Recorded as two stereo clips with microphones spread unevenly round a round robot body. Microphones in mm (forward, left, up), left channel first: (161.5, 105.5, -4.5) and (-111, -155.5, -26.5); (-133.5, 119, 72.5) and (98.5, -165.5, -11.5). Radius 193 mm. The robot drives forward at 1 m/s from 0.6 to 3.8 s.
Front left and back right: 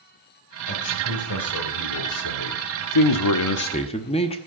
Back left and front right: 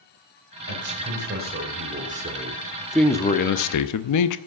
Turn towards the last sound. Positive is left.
turn(degrees=115)